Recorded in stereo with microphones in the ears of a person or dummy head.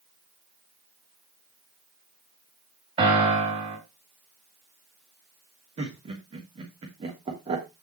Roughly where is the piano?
Right.